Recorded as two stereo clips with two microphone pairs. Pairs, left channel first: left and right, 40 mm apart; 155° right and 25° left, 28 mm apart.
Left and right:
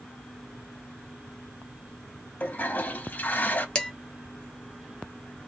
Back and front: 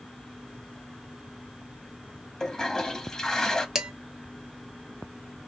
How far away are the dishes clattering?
About 0.7 m.